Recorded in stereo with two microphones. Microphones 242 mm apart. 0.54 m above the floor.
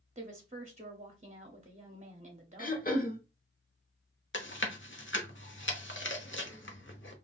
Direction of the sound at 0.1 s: 30° right (ahead or behind).